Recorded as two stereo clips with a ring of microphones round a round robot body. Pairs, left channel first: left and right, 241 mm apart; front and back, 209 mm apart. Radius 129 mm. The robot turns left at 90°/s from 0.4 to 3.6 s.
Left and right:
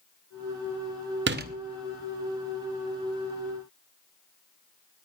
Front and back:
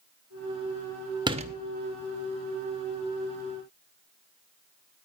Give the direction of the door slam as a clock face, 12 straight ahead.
4 o'clock.